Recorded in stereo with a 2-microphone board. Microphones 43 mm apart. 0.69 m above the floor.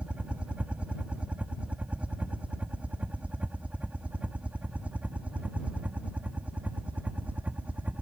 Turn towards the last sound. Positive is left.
turn(degrees=-35)  # may be behind; listen again after turning